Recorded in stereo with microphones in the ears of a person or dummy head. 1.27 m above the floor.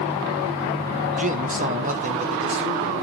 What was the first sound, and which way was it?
A man speaking, 35° right (ahead or behind).